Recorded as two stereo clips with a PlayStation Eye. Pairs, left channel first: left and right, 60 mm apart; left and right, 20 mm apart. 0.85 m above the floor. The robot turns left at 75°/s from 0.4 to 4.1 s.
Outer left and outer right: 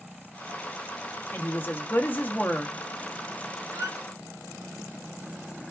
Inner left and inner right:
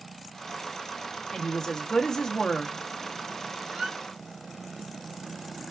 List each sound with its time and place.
1.3 s a woman speaking: 120° left, 0.7 m; by 2.8 s 10° left, 0.7 m
3.7 s a squeak: 50° right (ahead or behind), 0.6 m; by 4.0 s 70° right (ahead or behind), 0.6 m